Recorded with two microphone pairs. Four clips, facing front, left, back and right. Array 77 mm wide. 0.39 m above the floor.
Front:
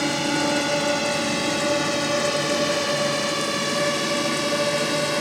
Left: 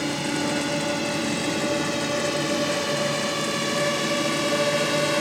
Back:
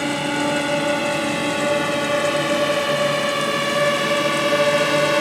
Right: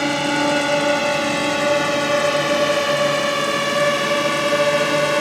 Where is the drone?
95° right; by 5.2 s 135° right.